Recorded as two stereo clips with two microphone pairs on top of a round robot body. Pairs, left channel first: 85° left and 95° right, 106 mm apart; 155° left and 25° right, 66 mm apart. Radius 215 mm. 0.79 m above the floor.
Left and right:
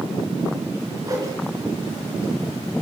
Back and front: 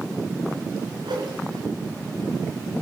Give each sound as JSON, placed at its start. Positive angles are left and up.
{"t": 1.0, "sound": "a whoosh", "azimuth_deg": -35, "distance_m": 3.5}